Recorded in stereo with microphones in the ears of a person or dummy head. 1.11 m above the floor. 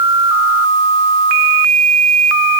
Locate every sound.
Only background noise.